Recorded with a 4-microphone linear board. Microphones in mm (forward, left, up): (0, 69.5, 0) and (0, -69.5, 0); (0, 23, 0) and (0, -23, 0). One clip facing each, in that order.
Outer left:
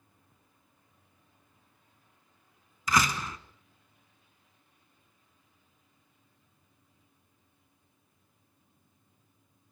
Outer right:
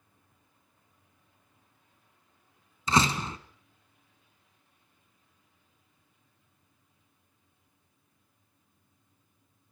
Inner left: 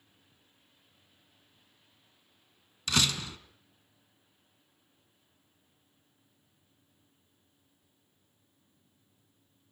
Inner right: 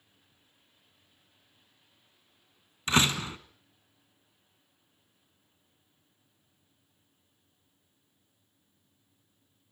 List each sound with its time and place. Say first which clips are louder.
2.9 s a door slam: outer right 2 dB, inner right 4 dB; 30° right (ahead or behind), 1.4 m